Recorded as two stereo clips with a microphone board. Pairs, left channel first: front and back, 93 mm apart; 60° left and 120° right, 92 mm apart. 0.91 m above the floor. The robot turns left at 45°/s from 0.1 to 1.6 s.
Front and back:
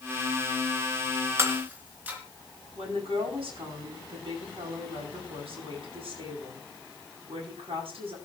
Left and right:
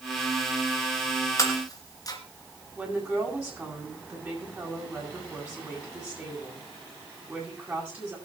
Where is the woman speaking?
165° left, 9 m.